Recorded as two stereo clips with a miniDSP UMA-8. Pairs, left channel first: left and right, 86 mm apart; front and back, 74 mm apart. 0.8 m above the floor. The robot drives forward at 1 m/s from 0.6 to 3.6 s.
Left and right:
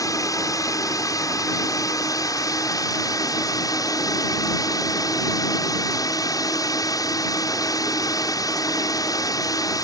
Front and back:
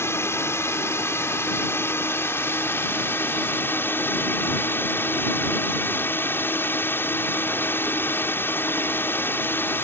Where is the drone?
50° left; by 9.8 s 55° left.